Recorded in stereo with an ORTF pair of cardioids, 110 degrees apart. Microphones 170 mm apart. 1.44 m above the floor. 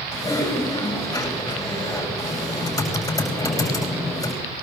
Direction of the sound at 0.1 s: 20° left.